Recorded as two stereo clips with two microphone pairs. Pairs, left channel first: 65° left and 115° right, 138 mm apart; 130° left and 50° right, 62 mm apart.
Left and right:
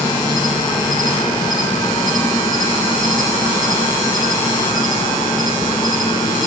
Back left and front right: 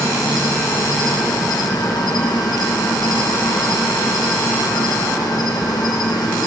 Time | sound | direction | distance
0.0 | an insect | 125° left | 3 m